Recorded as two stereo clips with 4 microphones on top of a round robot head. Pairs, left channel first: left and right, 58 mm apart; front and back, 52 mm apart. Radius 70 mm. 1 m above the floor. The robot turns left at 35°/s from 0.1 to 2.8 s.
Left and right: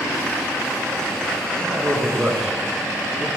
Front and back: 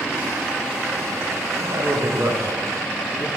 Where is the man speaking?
140° right, 1.8 m; by 3.3 s 175° left, 1.8 m.